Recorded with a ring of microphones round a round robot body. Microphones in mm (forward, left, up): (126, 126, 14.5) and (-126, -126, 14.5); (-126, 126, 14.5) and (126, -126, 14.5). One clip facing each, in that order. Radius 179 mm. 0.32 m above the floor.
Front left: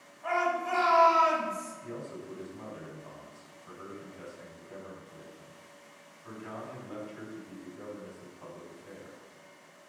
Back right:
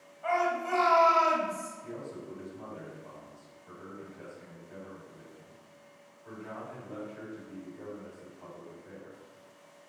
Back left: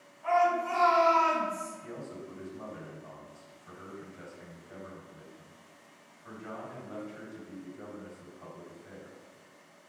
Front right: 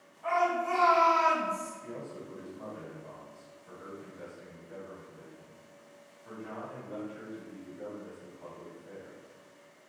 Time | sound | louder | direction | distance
0.2 | a shout | back right 1 dB, back left 2 dB | 135° right | 1.9 m
1.8 | a man speaking | front left 1 dB, even | 80° left | 1.7 m